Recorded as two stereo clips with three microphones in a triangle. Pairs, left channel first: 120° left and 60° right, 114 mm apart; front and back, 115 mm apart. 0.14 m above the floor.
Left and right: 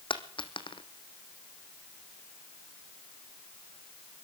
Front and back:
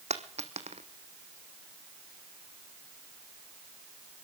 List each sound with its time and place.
0.1 s a dropped coin: 165° left, 1.1 m